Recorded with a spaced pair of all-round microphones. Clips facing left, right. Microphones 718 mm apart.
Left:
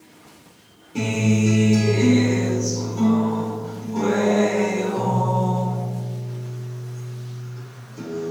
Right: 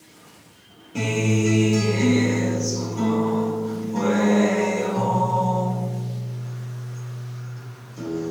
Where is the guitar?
15° right (ahead or behind), 2.5 m.